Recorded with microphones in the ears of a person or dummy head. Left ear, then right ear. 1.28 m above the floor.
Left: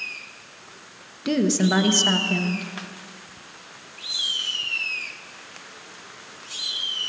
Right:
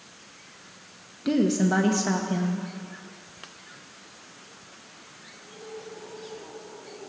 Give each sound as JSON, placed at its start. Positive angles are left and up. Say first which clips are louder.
{"t": 1.2, "sound": "a woman speaking", "louder": "left 2 dB", "side_deg": 20, "distance_m": 1.0}